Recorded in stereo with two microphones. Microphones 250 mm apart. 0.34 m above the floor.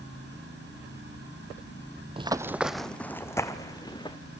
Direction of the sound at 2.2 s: 20° right (ahead or behind).